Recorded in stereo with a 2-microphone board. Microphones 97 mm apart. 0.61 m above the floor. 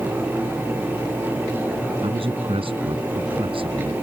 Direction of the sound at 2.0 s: 75° right (ahead or behind).